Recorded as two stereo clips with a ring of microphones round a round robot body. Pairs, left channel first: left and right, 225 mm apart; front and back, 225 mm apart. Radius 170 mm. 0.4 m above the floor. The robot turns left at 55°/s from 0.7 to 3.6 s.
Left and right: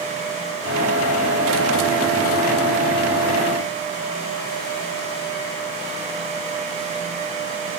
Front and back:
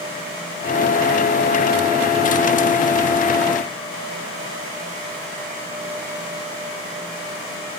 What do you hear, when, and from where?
Only background noise.